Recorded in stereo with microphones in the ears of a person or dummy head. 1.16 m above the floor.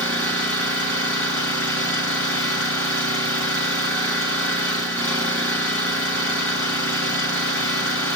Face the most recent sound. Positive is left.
turn(degrees=15)  # may be behind; listen again after turning